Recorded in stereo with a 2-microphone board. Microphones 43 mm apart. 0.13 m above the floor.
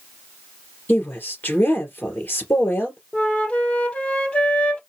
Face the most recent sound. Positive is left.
turn(degrees=30)  # may be behind; listen again after turning